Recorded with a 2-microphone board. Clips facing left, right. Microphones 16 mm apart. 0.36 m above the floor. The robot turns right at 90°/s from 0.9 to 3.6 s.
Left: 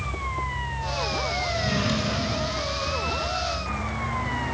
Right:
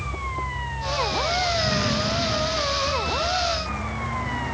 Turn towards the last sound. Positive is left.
turn(degrees=-175)